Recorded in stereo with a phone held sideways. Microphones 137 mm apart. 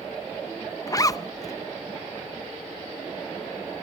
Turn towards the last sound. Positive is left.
turn(degrees=25)  # may be behind; listen again after turning